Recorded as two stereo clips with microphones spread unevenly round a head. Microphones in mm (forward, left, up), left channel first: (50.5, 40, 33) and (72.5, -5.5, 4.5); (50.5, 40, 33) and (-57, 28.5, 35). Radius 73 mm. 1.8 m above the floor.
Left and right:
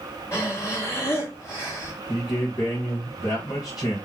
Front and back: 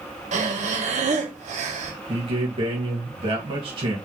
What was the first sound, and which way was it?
Breathing, 175° left.